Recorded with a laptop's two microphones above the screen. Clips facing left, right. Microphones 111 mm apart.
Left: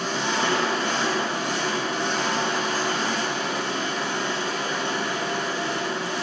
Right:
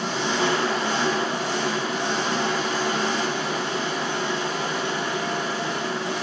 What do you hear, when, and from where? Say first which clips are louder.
0.0 s an engine running: right 1 dB; 25° right (ahead or behind), 1.0 m